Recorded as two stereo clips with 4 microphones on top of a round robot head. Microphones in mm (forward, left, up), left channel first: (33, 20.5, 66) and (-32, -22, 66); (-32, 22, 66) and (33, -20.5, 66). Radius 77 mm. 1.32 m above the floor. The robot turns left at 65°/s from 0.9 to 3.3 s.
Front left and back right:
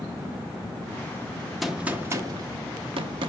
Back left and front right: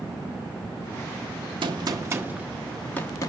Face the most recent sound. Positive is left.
turn(degrees=-170)